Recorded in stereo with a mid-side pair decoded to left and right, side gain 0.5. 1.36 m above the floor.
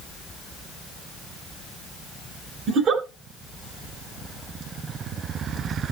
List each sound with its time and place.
2.7 s a giggle: 55° right, 3 m